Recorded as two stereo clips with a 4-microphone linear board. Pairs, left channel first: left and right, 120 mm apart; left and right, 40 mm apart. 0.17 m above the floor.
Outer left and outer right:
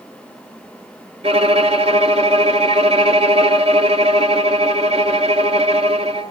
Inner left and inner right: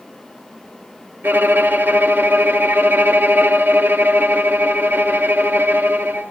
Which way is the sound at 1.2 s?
55° right (ahead or behind).